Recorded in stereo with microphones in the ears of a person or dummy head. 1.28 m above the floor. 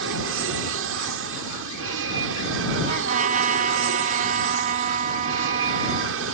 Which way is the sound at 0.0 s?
70° right (ahead or behind).